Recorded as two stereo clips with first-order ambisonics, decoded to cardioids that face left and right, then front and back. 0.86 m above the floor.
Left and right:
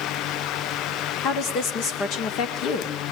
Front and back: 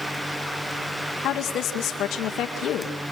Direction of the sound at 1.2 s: 45° left.